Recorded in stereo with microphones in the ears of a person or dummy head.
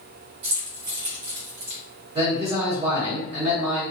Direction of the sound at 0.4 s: 25° right (ahead or behind).